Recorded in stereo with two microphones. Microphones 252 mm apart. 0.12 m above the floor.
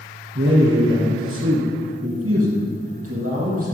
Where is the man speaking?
50° right (ahead or behind), 2.5 m; by 3.7 s 70° right (ahead or behind), 5.5 m.